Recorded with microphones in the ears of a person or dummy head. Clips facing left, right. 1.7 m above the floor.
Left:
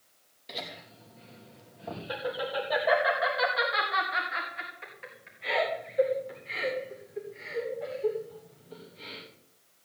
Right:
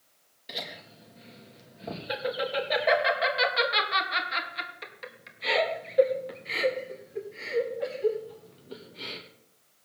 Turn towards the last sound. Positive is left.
turn(degrees=-75)  # may be behind; listen again after turning